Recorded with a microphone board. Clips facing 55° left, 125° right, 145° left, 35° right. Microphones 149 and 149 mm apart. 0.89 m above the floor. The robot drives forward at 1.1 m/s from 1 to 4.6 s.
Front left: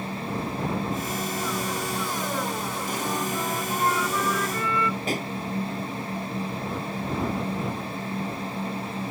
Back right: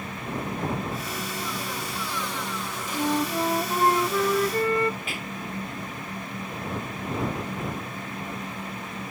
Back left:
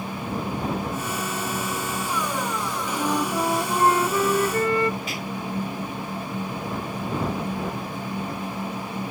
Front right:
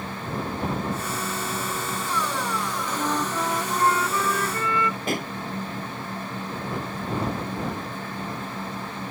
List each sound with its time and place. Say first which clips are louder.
2.9 s a flute: back right 6 dB, back left 3 dB; 125° right; by 5.0 s 170° right
5.1 s a pop: front left 7 dB, front right 4 dB; 5° left